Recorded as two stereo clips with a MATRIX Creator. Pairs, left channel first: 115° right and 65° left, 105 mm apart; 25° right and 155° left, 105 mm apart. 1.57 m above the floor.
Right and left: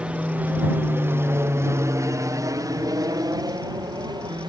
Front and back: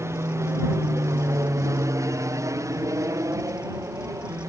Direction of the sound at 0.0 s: 135° left.